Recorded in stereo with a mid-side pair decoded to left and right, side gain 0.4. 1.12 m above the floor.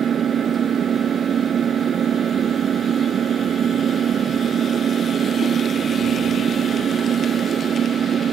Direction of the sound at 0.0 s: 55° right.